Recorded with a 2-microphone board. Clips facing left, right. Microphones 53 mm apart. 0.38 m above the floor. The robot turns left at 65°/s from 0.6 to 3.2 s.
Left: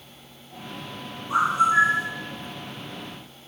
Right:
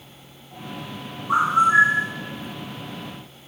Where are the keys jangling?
No keys jangling in this recording.